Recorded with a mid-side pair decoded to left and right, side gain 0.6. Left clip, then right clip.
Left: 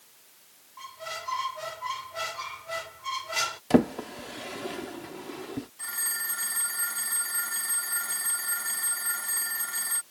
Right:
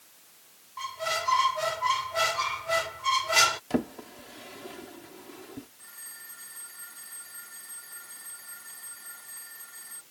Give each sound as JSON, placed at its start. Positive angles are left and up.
{"t": 0.8, "sound": "a squeak", "azimuth_deg": -35}
{"t": 3.7, "sound": "a drawer", "azimuth_deg": 45}
{"t": 5.8, "sound": "a phone ringing", "azimuth_deg": 60}